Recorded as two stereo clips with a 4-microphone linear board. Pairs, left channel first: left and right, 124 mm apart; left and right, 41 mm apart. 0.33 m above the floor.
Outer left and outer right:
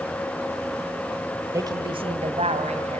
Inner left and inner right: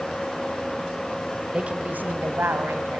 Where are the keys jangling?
I don't hear keys jangling.